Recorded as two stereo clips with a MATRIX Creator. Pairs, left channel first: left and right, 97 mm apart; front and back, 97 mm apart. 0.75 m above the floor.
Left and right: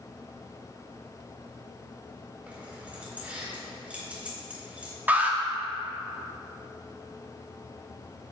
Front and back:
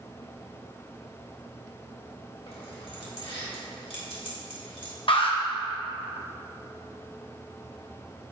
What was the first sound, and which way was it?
Keys jangling, 15° right.